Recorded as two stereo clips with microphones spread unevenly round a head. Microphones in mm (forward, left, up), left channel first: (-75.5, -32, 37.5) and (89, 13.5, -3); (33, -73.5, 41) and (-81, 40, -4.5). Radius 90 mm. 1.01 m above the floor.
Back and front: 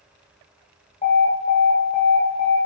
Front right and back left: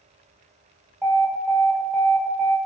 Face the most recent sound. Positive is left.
turn(degrees=150)